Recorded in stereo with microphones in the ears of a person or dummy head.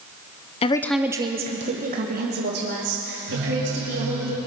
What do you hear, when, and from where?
0.6 s a woman speaking: 30° left (ahead or behind), 0.7 m; by 4.3 s 55° right (ahead or behind), 4 m
3.3 s a phone buzzing: 60° right (ahead or behind), 3.5 m